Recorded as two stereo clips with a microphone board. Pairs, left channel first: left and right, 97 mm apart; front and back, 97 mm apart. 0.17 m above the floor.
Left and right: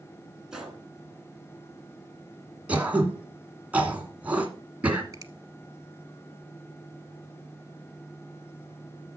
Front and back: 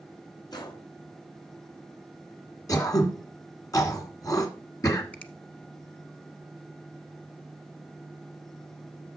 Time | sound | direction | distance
0.5 | a gunshot | 10° right | 2 m
2.7 | throat clearing | 20° right | 1.9 m
5.1 | a finger snap | 65° right | 1.0 m